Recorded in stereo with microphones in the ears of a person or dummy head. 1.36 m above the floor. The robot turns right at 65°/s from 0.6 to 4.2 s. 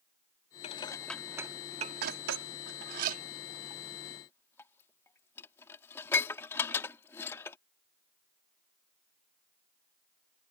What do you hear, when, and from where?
0.6 s dishes clattering: 30° left (ahead or behind); by 7.6 s 20° left (ahead or behind)